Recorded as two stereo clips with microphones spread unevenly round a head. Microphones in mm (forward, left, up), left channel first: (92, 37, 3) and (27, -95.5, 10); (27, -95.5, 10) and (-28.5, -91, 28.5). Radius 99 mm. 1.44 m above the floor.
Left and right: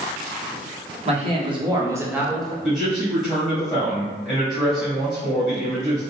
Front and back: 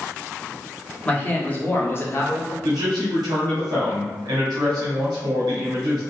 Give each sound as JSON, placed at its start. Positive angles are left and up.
{"t": 1.1, "sound": "a man speaking", "azimuth_deg": -70, "distance_m": 1.6}
{"t": 2.6, "sound": "a man speaking", "azimuth_deg": 135, "distance_m": 1.0}